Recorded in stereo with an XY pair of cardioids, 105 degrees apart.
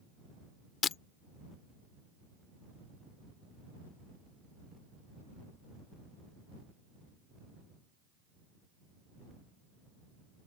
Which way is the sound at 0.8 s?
55° left.